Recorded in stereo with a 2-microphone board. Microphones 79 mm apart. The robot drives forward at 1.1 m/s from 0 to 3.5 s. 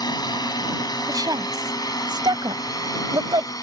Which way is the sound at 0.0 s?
60° left (ahead or behind).